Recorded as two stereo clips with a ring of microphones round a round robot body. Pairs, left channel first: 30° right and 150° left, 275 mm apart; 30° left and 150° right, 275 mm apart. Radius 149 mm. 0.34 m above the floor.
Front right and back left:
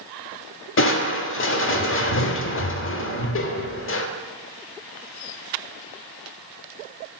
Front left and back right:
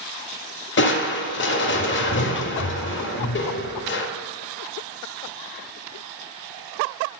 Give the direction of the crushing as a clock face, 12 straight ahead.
12 o'clock.